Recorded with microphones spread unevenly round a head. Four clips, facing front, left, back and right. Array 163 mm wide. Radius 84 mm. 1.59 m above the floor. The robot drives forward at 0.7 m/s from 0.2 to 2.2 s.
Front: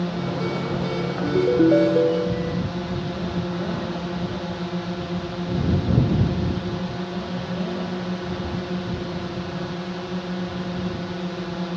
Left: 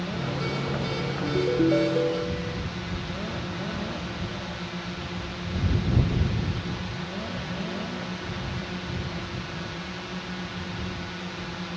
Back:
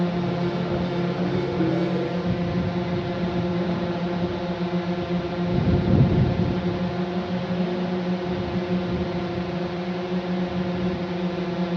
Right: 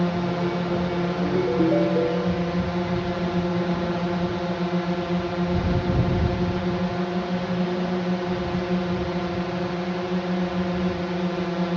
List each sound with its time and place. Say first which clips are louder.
0.0 s a drone: right 7 dB, back 1 dB; 95° right
1.2 s a ringtone: right 1 dB, front 10 dB; 5° right